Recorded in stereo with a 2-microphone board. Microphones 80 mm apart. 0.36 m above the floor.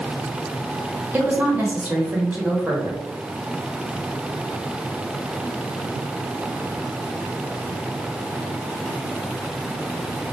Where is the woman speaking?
20° right (ahead or behind), 1.1 m.